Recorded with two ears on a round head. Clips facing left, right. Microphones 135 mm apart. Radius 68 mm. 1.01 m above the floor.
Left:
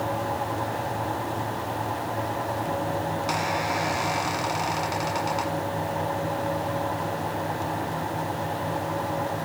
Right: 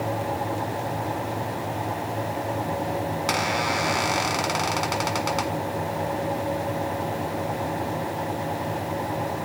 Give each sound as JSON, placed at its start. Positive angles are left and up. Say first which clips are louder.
{"t": 3.3, "sound": "a squeak", "louder": "right 2 dB", "side_deg": -65, "distance_m": 1.8}